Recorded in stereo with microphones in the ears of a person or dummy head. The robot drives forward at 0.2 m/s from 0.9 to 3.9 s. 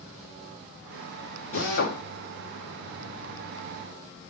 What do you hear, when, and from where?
1.5 s a drill: 50° left (ahead or behind), 2 m